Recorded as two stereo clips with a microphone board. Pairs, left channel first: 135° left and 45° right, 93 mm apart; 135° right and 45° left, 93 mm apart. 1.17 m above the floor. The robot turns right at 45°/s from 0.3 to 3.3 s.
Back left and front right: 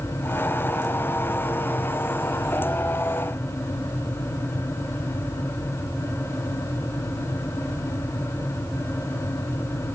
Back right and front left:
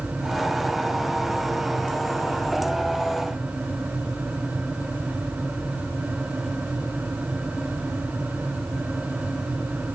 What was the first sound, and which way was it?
Only background noise.